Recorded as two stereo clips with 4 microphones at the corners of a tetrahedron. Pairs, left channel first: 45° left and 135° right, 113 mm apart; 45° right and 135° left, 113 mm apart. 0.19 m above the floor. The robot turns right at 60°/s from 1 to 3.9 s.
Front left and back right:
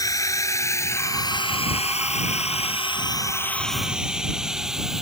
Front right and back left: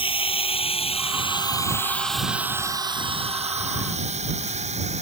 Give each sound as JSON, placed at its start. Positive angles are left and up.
{"t": 0.0, "sound": "a drone", "azimuth_deg": -10}